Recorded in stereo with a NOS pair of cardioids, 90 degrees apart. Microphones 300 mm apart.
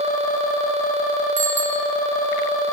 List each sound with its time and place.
1.4 s a bicycle bell: 70° right, 6.5 m